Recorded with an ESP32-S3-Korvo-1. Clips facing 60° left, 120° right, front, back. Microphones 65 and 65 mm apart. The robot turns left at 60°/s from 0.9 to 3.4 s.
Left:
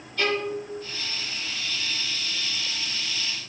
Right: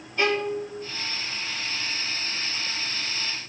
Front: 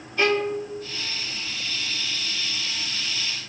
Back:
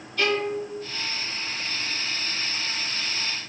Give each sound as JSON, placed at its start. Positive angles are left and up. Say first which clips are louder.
{"t": 0.2, "sound": "a violin", "louder": "right 2 dB, front 2 dB", "azimuth_deg": -60, "distance_m": 1.2}